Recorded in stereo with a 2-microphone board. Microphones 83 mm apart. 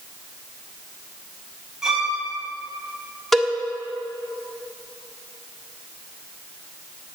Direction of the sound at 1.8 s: 10° right (ahead or behind).